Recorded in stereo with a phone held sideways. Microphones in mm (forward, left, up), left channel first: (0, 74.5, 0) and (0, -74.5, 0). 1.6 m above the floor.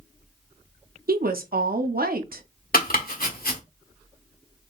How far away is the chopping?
About 1.4 m.